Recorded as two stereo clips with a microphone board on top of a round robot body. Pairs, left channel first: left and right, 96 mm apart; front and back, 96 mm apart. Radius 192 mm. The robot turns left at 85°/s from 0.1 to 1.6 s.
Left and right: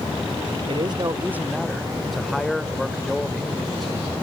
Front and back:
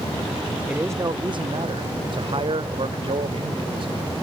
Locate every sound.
0.7 s a man speaking: 105° right; by 3.9 s 175° left